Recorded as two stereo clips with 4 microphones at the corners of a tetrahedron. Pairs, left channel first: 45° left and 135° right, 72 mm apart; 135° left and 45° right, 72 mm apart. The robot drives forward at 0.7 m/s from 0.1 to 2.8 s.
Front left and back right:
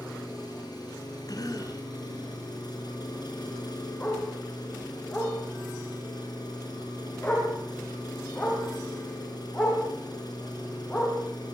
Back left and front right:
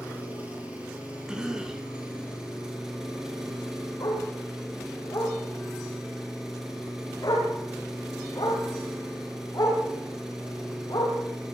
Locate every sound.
0.0 s an engine running: 25° left, 6.5 m; by 11.6 s 35° left, 4.5 m
1.3 s a cough: 35° left, 3 m; by 1.9 s 40° left, 2.5 m
4.0 s a dog barking: 105° left, 7.5 m